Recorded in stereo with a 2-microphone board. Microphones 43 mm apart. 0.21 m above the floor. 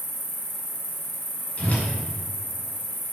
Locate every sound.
0.0 s an insect: 70° left (ahead or behind), 2 m
1.6 s a whoosh: 40° left (ahead or behind), 2 m